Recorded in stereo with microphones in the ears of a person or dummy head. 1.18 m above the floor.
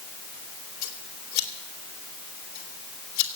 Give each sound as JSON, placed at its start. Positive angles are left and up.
{"t": 0.8, "sound": "scissors", "side_deg": 75, "distance_m": 2.5}